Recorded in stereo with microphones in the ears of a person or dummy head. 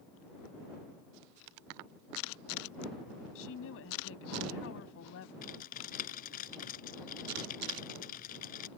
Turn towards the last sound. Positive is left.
turn(degrees=45)  # may be behind; listen again after turning